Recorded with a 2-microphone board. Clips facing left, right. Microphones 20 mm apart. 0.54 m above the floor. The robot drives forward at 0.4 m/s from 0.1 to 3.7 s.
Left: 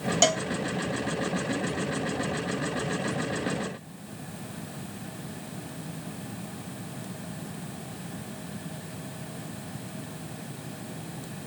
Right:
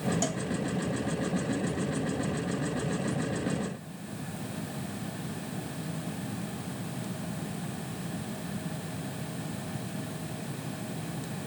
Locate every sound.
0.2 s a cowbell: 60° left (ahead or behind); by 0.5 s 55° left (ahead or behind)